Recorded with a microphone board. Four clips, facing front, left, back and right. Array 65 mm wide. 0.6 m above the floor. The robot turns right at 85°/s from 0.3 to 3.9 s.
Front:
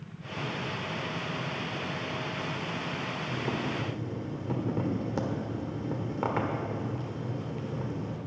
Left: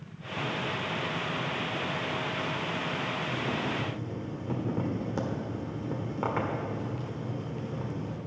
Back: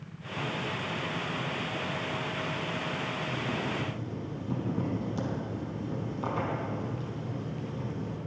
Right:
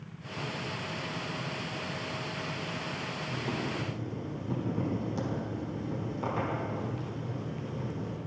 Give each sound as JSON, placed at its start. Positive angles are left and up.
{"t": 3.3, "sound": "boiling", "azimuth_deg": -15, "distance_m": 1.3}